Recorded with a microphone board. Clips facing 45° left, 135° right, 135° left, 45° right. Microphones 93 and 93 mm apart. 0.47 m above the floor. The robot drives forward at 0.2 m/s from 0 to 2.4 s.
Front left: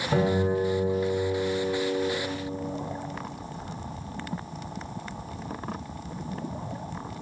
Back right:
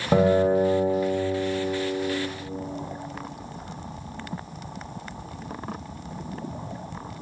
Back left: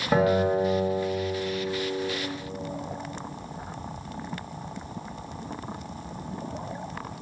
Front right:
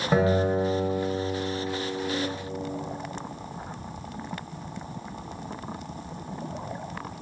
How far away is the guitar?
About 1.5 m.